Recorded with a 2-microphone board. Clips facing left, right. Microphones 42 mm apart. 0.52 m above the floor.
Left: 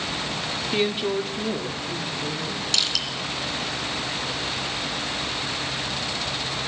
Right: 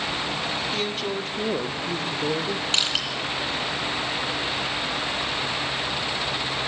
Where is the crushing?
35° right (ahead or behind), 2.5 m.